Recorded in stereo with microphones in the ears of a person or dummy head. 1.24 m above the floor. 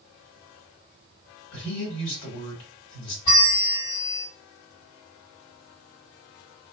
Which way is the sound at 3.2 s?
40° left (ahead or behind).